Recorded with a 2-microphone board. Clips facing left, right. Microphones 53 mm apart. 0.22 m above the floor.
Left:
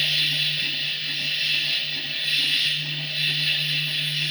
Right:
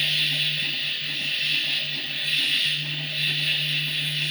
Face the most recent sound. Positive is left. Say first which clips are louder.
# left 1 dB
turn(degrees=-15)  # may be behind; listen again after turning